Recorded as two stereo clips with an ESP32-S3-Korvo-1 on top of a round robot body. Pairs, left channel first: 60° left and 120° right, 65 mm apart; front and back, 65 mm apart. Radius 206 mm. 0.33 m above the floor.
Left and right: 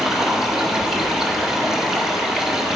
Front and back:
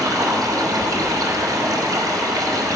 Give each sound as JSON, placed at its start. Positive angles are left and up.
{"t": 0.0, "sound": "running water", "azimuth_deg": 160, "distance_m": 1.4}